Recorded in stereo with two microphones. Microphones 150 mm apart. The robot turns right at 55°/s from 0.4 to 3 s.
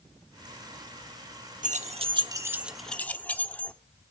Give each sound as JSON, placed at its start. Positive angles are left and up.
{"t": 1.6, "sound": "keys jangling", "side_deg": -55, "distance_m": 0.8}